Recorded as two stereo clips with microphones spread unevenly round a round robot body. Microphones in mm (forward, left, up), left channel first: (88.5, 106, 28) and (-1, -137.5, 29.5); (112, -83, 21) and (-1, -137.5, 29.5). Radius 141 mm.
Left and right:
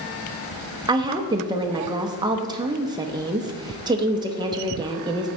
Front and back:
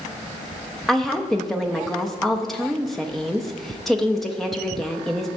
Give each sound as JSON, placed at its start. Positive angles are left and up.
{"t": 0.9, "sound": "a woman speaking", "azimuth_deg": -50, "distance_m": 0.6}